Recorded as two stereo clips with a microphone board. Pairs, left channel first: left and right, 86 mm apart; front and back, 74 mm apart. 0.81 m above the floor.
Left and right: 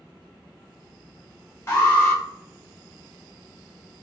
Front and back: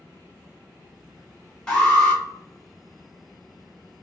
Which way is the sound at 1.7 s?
70° left.